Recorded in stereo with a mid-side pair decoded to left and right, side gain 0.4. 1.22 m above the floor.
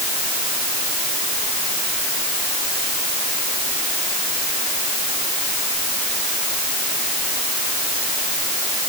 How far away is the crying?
No crying in this recording.